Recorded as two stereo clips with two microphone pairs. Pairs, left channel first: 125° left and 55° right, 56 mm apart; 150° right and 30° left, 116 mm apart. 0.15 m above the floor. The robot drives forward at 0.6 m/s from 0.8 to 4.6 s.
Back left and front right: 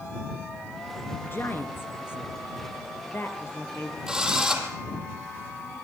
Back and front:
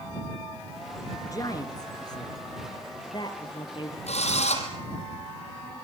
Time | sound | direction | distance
1.2 | a woman speaking | 160° left | 2.5 m
4.1 | a drill | 135° right | 5 m